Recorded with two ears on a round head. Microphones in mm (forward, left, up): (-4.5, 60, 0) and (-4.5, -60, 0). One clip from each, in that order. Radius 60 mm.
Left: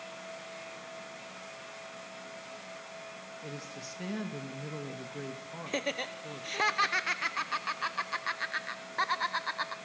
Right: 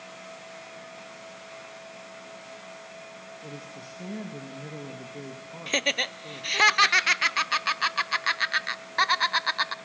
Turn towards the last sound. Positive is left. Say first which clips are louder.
# right 9 dB
turn(degrees=-60)  # may be behind; listen again after turning